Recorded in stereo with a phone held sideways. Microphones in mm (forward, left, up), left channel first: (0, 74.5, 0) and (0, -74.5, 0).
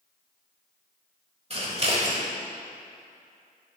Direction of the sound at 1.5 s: 45° right (ahead or behind).